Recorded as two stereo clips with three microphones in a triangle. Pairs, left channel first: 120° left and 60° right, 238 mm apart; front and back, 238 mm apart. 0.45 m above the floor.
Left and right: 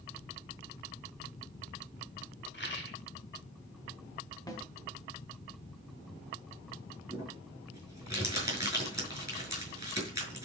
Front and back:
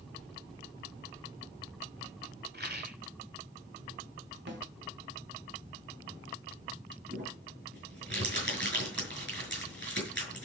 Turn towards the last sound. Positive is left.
turn(degrees=-135)